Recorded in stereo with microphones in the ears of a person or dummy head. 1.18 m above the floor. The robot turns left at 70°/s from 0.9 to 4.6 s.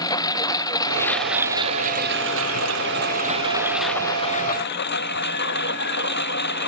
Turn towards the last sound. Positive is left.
turn(degrees=130)